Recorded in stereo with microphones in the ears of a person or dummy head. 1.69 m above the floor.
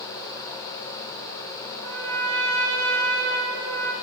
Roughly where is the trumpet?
Right.